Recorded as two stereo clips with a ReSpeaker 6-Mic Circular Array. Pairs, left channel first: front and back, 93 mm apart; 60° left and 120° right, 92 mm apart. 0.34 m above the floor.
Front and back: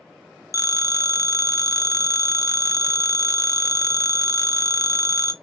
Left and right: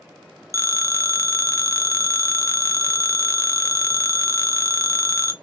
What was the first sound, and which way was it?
A phone ringing, 25° left.